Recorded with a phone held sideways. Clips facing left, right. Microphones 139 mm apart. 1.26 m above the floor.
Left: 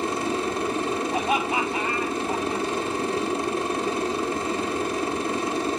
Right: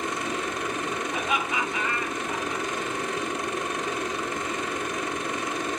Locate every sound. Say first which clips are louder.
0.0 s a machine running: left 4 dB; 30° left (ahead or behind), 0.9 m
1.1 s laughter: left 4 dB; 55° left (ahead or behind), 6.5 m